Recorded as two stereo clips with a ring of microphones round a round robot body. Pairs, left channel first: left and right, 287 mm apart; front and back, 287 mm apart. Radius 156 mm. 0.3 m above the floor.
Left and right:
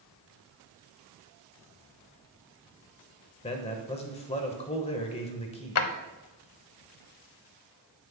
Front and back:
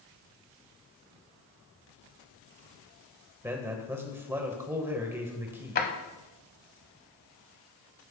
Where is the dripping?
No dripping in this recording.